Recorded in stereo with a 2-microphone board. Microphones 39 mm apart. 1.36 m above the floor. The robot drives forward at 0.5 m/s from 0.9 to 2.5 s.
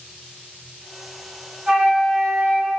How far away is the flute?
About 1.3 m.